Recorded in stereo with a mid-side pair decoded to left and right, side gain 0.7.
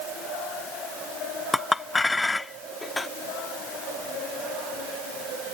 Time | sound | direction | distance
1.5 | a clink | 15° left | ?